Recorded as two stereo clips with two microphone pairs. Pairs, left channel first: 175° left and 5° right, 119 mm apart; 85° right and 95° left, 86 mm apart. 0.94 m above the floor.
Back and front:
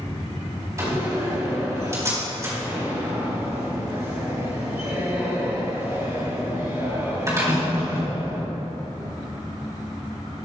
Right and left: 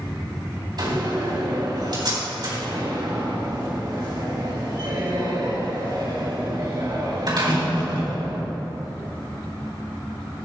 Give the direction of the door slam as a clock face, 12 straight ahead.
10 o'clock.